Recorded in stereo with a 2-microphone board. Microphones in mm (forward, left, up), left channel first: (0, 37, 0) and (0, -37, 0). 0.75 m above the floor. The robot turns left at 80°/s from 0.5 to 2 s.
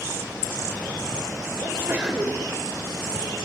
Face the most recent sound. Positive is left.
turn(degrees=-165)